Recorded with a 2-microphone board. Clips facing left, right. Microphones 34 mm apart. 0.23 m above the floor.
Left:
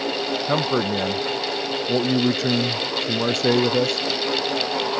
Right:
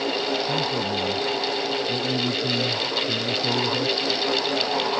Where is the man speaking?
75° left (ahead or behind).